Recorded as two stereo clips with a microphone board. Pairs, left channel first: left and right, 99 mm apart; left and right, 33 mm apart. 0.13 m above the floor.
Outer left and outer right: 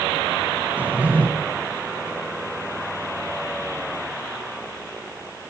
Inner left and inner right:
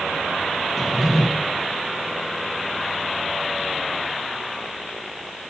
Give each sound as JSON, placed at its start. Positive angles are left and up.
{"t": 0.8, "sound": "a drawer", "side_deg": -15, "distance_m": 1.2}